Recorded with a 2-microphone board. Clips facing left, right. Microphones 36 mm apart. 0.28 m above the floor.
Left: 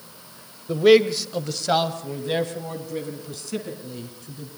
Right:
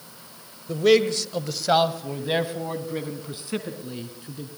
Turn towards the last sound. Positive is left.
turn(degrees=-25)  # may be behind; listen again after turning